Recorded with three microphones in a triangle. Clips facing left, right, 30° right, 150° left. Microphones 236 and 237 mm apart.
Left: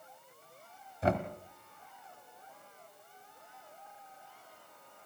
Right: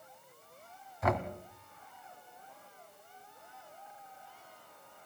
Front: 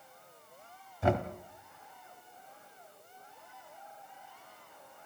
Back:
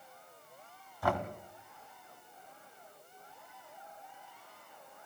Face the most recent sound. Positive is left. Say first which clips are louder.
# left 1 dB, front 4 dB
turn(degrees=35)